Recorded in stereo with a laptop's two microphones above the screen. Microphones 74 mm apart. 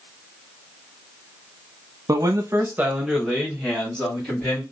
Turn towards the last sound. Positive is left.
turn(degrees=20)  # may be behind; listen again after turning